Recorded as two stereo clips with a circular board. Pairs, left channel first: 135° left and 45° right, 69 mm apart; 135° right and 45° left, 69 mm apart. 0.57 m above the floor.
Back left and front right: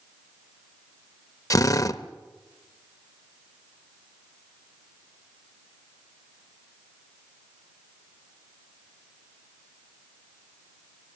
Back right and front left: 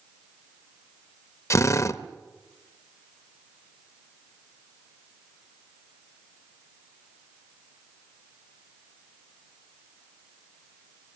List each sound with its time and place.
1.5 s a drill: 175° left, 0.7 m